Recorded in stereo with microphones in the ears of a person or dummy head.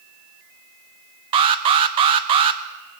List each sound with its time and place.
1.3 s an alarm: 30° right (ahead or behind), 0.5 m